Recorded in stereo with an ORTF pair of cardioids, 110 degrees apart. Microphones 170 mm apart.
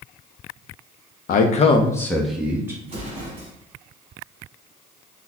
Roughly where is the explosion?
Ahead right.